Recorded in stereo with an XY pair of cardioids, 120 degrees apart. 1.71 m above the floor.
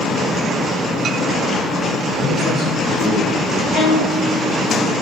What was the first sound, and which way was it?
A man speaking, 65° left.